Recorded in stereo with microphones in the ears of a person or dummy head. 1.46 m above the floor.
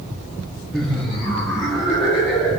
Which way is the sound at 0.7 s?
Centre (ahead or behind).